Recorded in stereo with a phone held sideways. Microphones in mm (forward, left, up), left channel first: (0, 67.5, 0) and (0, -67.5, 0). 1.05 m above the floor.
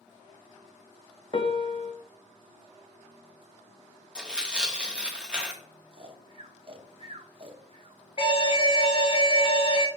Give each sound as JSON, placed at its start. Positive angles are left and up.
{"t": 1.3, "sound": "a piano", "side_deg": 40, "distance_m": 0.7}
{"t": 4.2, "sound": "tearing paper", "side_deg": -5, "distance_m": 1.3}
{"t": 5.9, "sound": "snoring", "side_deg": -40, "distance_m": 0.8}
{"t": 8.2, "sound": "an alarm", "side_deg": 40, "distance_m": 1.0}